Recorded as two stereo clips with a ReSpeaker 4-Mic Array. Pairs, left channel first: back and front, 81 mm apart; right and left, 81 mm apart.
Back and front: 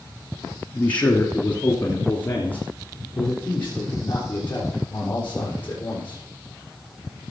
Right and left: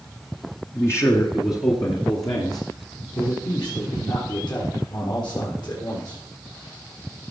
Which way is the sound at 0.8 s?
115° right.